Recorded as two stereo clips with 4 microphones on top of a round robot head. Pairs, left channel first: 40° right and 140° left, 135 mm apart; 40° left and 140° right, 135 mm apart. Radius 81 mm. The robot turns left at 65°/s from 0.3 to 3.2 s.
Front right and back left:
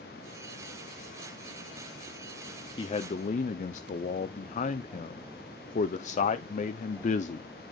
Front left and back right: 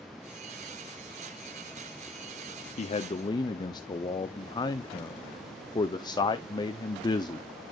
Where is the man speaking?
15° left, 0.5 m; by 7.5 s 15° right, 0.5 m.